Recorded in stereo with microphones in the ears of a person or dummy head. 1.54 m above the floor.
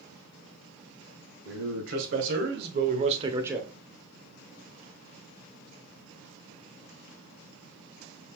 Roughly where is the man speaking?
Right.